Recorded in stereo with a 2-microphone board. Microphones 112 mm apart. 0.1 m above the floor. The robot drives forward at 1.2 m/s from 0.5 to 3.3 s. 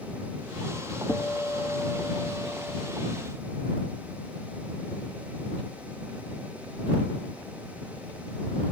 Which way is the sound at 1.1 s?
20° left (ahead or behind).